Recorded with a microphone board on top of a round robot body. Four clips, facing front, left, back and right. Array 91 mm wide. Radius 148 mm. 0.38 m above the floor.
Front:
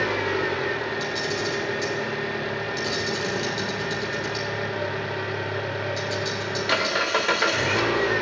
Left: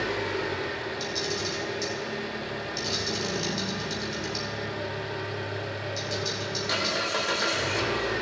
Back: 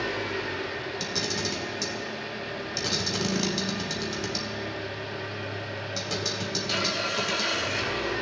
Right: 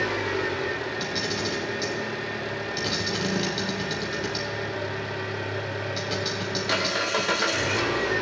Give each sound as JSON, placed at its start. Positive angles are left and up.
{"t": 0.0, "sound": "an engine running", "azimuth_deg": -10, "distance_m": 0.8}
{"t": 1.0, "sound": "a camera shutter", "azimuth_deg": -130, "distance_m": 1.1}